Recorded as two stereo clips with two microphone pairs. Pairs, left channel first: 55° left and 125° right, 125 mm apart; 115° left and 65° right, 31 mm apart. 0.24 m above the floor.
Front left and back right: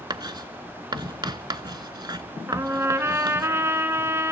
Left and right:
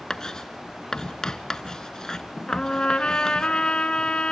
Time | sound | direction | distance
0.1 | writing | straight behind | 0.8 m
2.5 | a trumpet | 170° left | 1.3 m